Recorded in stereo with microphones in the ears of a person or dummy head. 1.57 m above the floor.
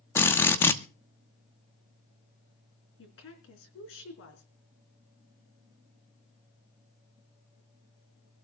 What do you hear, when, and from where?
0.1 s a drill: 10° left (ahead or behind), 0.9 m
3.0 s a woman speaking: 65° left (ahead or behind), 3.5 m